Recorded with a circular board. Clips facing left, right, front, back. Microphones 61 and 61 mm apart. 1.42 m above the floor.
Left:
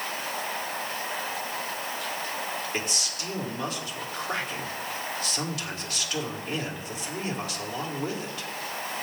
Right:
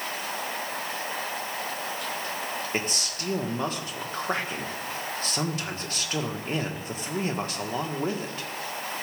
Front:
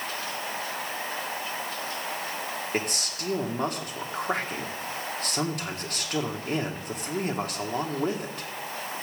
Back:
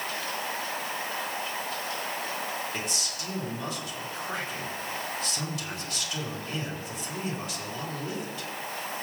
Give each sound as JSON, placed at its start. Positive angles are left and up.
{"t": 2.7, "sound": "a man speaking", "azimuth_deg": -35, "distance_m": 1.8}